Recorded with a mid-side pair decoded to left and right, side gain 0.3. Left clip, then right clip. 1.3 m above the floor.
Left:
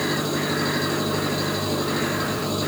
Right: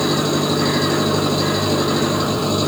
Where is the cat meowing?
I don't hear a cat meowing.